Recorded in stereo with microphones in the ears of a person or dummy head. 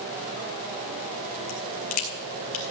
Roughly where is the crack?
Left.